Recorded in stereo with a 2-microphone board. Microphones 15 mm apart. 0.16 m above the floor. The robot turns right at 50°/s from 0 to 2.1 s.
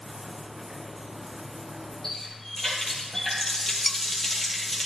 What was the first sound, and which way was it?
A running tap, 30° left (ahead or behind).